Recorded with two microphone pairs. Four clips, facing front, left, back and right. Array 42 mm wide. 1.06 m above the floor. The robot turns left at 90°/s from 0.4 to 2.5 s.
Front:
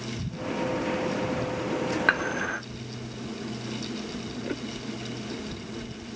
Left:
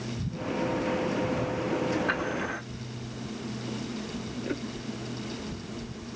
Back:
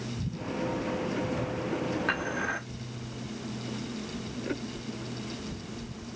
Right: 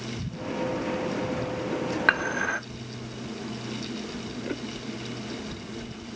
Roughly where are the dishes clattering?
Ahead right.